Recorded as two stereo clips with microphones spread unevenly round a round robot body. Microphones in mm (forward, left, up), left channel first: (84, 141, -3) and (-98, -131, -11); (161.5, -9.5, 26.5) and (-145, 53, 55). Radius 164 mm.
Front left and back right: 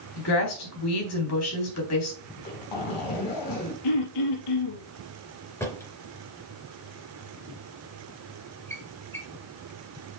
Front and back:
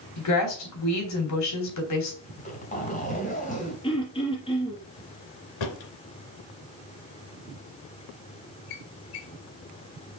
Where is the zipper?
55° left, 3.5 m.